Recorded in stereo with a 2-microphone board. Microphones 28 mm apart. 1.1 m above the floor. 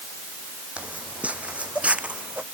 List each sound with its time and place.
0.8 s footsteps: 55° right (ahead or behind)